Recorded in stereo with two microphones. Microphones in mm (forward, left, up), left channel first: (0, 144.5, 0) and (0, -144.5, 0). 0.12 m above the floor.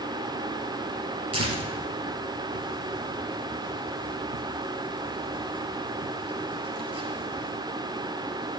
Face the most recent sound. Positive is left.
turn(degrees=-55)  # may be behind; listen again after turning